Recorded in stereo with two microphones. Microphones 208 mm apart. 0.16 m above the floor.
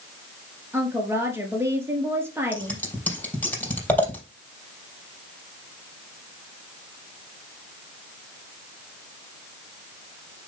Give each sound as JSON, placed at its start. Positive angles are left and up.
{"t": 0.7, "sound": "a woman speaking", "side_deg": -10, "distance_m": 3.0}
{"t": 2.5, "sound": "scissors", "side_deg": 10, "distance_m": 4.0}